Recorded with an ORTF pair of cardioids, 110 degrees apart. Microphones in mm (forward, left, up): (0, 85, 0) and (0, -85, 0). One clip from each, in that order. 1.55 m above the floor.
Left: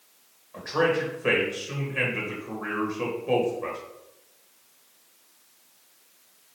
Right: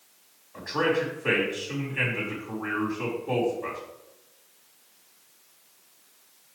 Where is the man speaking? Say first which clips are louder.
Left 1 dB; 65° left, 1.8 m.